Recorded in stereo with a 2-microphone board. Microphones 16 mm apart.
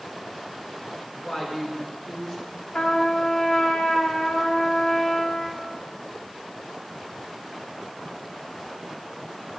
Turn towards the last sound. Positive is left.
turn(degrees=60)  # may be behind; listen again after turning